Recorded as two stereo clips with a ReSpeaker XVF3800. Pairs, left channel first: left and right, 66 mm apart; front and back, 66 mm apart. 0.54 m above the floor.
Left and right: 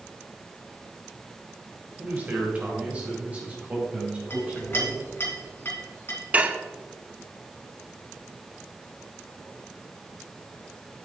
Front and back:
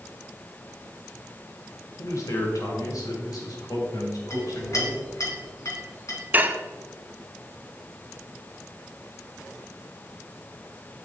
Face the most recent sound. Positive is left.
turn(degrees=-140)